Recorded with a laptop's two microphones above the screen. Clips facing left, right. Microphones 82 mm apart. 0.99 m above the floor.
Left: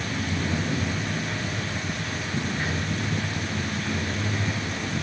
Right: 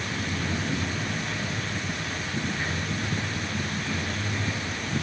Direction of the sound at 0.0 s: 15° left (ahead or behind).